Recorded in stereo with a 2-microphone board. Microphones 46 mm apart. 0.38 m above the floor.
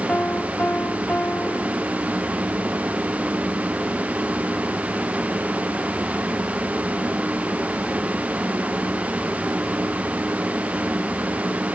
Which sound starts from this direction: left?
A piano, at 0.1 s.